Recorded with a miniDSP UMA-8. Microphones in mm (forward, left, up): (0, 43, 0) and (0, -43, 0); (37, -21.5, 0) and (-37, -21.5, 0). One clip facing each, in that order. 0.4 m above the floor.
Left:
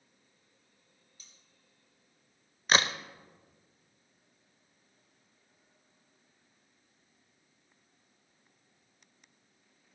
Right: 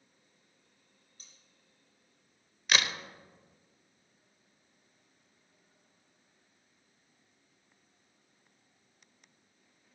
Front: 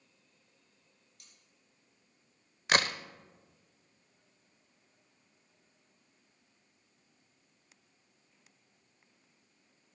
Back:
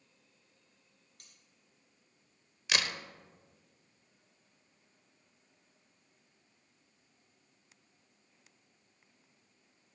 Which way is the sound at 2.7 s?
40° left.